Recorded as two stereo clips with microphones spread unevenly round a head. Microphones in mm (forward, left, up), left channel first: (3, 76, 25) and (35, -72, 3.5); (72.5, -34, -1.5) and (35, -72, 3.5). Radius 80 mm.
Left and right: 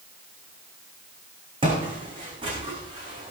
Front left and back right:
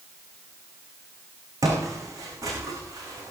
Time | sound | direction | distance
1.6 | footsteps | 140° right | 4 m